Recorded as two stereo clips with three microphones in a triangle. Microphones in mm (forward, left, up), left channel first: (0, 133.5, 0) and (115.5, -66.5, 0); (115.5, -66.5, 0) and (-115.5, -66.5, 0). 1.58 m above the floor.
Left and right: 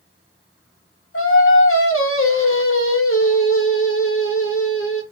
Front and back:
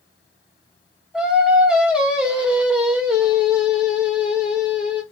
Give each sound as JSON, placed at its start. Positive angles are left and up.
{"t": 1.1, "sound": "singing", "azimuth_deg": 95, "distance_m": 0.8}